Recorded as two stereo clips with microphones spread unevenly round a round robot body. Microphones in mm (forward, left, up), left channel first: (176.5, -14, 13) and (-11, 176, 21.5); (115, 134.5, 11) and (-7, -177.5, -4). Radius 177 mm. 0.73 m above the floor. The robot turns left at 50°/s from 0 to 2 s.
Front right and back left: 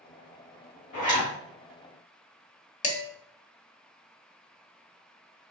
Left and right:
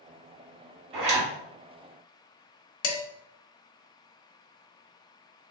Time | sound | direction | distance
0.9 | a zipper | 115° right | 2.5 m
2.8 | dishes clattering | 20° left | 1.4 m